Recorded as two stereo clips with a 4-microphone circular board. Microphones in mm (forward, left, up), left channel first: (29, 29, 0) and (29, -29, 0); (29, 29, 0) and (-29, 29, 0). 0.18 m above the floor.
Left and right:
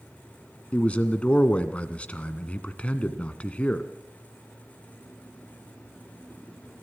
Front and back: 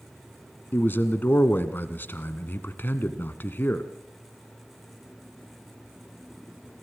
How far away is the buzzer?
No buzzer in this recording.